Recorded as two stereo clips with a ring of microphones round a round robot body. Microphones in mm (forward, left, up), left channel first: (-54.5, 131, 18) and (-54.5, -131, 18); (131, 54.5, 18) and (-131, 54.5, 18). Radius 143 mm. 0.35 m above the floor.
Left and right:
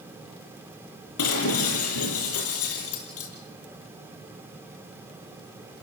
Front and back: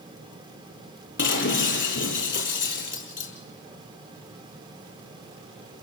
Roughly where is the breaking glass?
Ahead left.